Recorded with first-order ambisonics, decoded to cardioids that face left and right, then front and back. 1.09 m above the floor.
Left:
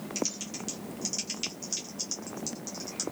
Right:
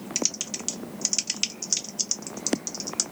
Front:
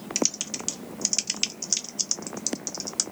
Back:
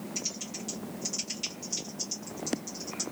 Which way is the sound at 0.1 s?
35° right.